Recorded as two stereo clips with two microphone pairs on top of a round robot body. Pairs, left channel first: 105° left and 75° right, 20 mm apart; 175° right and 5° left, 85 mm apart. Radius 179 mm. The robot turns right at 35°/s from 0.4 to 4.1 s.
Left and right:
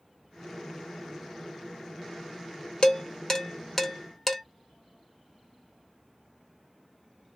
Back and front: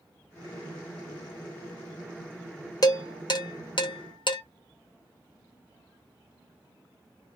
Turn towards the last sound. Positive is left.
turn(degrees=-170)